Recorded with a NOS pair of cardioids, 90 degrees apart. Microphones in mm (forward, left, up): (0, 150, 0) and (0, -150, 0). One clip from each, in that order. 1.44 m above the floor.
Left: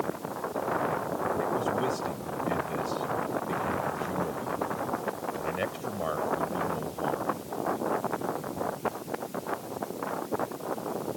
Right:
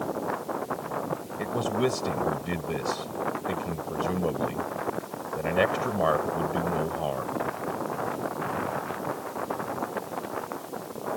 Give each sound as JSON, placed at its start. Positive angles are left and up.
{"t": 1.4, "sound": "a man speaking", "azimuth_deg": -55}